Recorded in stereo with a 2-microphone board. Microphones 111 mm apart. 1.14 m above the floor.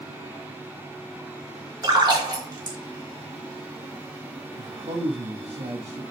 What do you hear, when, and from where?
1.8 s a splash: 35° right (ahead or behind), 4 m
4.6 s a man speaking: 70° right (ahead or behind), 2 m